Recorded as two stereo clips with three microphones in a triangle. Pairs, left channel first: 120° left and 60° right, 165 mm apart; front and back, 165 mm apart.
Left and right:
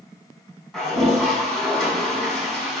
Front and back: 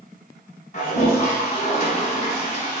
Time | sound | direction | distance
0.7 | a toilet flushing | 30° left | 1.3 m